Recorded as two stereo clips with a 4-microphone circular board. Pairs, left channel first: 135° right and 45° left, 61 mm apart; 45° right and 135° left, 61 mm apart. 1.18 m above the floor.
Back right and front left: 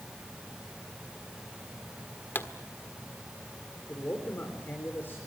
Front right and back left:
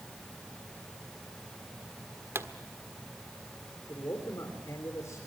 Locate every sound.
2.4 s a pop: 175° left, 1.4 m
3.9 s a man speaking: 75° right, 4 m